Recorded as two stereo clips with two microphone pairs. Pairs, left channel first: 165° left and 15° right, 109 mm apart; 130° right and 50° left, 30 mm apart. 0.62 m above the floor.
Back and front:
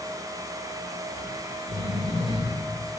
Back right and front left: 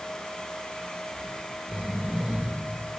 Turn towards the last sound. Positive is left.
turn(degrees=0)